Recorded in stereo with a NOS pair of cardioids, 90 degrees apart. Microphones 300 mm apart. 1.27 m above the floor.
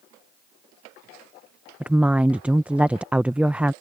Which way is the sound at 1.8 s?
5° right.